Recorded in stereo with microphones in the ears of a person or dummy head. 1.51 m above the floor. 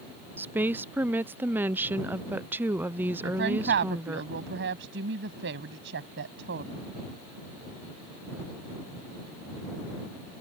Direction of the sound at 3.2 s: 65° right (ahead or behind).